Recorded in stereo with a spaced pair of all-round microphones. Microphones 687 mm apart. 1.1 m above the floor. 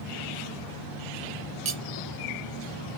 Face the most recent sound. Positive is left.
turn(degrees=-65)  # may be behind; listen again after turning